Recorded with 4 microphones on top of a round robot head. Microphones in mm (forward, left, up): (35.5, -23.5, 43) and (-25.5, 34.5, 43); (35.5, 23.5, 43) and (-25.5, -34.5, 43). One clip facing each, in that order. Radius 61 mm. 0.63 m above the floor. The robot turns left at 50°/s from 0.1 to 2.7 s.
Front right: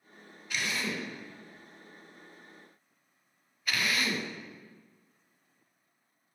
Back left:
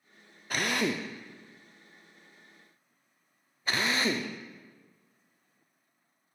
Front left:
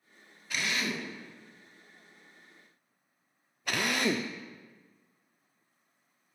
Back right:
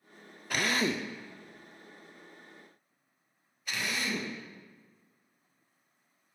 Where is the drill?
175° right, 0.7 m; by 6.3 s 75° left, 0.7 m.